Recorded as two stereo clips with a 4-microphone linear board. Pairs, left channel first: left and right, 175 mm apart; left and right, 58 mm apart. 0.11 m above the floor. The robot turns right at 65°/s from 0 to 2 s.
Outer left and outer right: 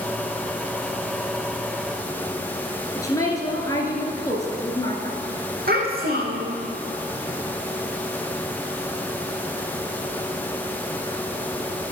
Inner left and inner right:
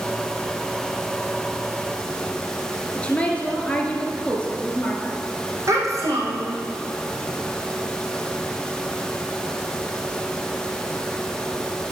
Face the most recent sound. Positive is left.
turn(degrees=-60)  # may be behind; listen again after turning